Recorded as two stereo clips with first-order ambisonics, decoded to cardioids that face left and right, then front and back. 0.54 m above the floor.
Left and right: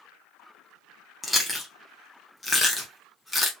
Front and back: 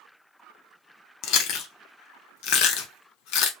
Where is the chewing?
5° left, 0.8 m.